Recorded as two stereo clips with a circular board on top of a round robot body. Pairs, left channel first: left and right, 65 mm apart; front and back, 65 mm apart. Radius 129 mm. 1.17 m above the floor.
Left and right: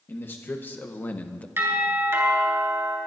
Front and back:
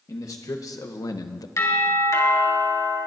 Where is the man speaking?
35° left, 1.3 m; by 1.5 s 20° left, 0.5 m.